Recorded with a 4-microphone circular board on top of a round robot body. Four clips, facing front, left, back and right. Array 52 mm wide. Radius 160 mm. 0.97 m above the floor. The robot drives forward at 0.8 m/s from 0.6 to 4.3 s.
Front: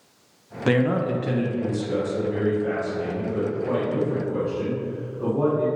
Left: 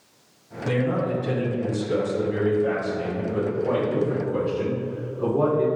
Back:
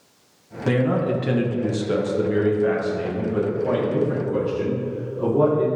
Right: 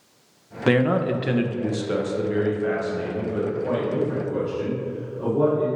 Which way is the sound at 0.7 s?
70° right.